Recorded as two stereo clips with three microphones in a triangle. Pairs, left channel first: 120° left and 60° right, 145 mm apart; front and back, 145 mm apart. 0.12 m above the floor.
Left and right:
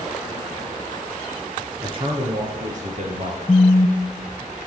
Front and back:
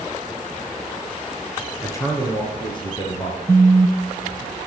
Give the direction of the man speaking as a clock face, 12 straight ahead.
2 o'clock.